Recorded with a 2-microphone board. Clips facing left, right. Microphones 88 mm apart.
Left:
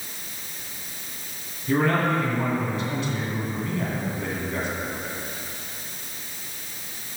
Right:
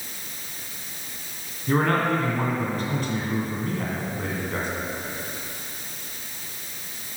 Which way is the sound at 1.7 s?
45° right (ahead or behind).